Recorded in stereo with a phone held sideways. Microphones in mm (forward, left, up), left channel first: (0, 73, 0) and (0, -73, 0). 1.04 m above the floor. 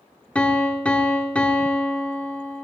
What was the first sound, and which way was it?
A piano, 10° left (ahead or behind).